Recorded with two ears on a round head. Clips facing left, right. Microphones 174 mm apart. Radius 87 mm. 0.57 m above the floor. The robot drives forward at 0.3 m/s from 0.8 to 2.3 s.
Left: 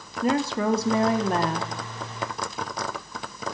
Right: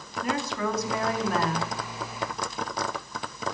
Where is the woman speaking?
25° left (ahead or behind), 0.6 m.